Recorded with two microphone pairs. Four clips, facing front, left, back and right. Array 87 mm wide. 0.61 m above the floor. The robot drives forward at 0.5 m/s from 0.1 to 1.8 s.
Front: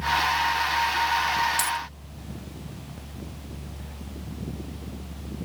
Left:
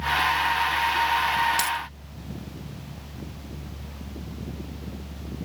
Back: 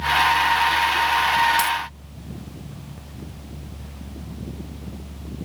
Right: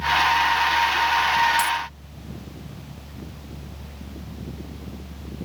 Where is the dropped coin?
130° left, 0.9 m; by 1.8 s 135° left, 0.9 m.